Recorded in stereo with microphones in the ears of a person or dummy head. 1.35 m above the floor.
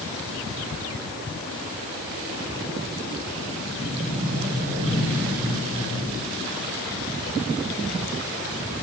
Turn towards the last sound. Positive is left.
turn(degrees=-45)  # may be behind; listen again after turning